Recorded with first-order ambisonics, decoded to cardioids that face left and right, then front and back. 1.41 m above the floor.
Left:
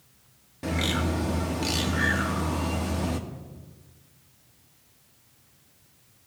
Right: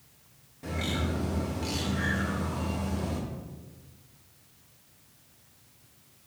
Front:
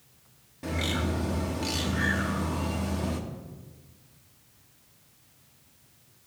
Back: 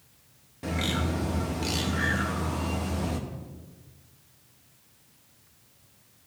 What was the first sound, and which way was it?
A bird, 100° left.